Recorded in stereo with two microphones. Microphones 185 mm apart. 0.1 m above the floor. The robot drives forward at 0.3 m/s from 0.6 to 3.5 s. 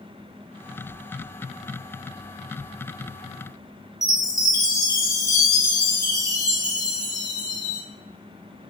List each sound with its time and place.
4.0 s a chime: 25° right (ahead or behind), 1.7 m